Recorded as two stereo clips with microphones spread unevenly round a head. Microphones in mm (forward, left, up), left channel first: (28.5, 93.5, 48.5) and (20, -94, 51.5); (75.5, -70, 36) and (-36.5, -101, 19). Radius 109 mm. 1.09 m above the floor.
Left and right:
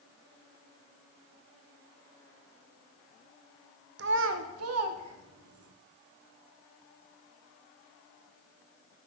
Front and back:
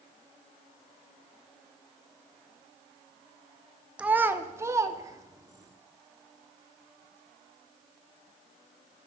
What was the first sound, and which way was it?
A child speaking, 80° right.